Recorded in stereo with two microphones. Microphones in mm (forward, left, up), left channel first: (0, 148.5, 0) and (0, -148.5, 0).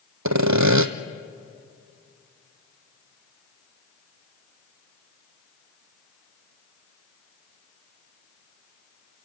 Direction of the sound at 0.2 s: 70° right (ahead or behind).